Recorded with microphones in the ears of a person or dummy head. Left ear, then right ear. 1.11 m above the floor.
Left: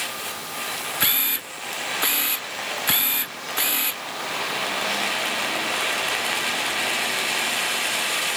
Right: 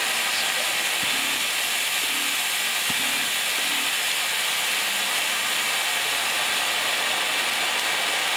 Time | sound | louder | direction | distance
1.0 | a camera shutter | right 1 dB | 70° left (ahead or behind) | ?